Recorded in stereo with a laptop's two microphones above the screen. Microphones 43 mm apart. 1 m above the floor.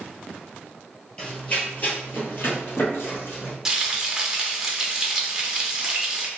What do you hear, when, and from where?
1.2 s running footsteps: 25° left (ahead or behind), 1.5 m; by 3.5 s 65° left (ahead or behind), 2.5 m
3.6 s frying: 10° right (ahead or behind), 1.1 m